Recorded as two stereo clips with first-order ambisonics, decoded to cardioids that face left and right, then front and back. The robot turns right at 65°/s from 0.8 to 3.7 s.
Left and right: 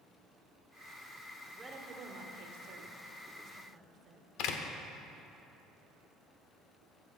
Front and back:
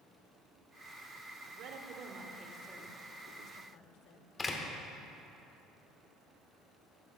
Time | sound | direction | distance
1.4 | a woman speaking | 175° right | 1.2 m
4.4 | a door slam | 75° left | 1.0 m